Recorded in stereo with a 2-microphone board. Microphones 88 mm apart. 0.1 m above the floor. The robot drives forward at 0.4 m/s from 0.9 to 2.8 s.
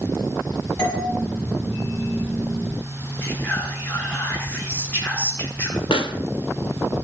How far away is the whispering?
About 1.5 m.